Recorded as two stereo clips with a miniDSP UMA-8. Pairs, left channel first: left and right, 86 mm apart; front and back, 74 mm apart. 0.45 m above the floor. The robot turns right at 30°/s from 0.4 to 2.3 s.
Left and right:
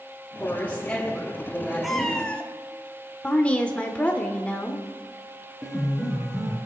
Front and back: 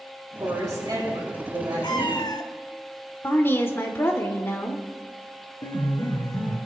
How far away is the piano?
About 5.5 m.